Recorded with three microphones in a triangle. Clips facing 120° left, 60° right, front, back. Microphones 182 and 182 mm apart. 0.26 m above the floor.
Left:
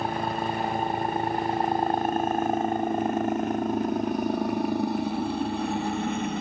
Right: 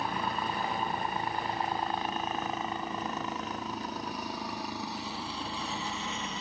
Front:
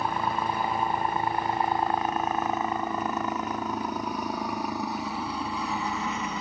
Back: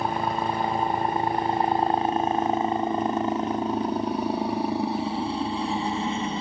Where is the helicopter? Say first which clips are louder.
Left 6 dB, back 3 dB; 130° left; by 6.4 s 125° left.